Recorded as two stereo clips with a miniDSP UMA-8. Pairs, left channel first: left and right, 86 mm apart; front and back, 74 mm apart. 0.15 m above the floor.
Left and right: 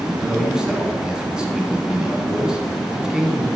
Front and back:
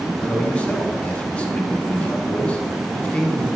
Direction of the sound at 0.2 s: 30° right.